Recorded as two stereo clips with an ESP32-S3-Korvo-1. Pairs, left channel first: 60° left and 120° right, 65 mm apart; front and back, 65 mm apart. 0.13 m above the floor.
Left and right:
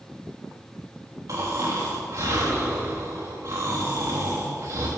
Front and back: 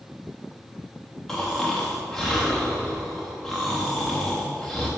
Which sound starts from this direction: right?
Snoring, at 1.3 s.